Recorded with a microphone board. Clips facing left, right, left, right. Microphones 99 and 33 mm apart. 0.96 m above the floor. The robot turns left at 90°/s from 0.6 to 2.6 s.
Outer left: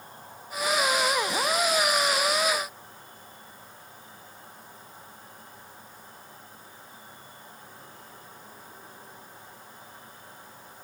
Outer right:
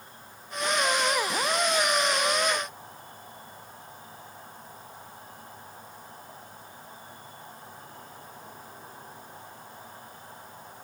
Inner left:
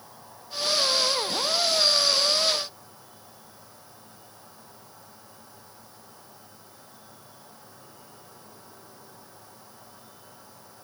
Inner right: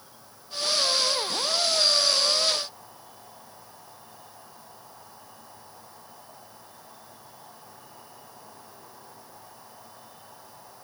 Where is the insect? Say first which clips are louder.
Outer left 3 dB, inner left 4 dB; 140° left, 8.5 m; by 10.8 s 40° right, 8.5 m.